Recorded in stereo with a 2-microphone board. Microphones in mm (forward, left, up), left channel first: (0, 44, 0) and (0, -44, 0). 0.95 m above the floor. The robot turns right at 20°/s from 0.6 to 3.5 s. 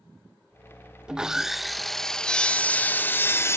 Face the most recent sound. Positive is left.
turn(degrees=35)